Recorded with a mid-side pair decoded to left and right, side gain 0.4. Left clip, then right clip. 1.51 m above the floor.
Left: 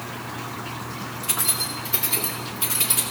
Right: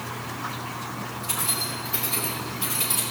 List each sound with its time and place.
1.2 s keys jangling: 60° left, 2 m; by 3.0 s 50° left, 3 m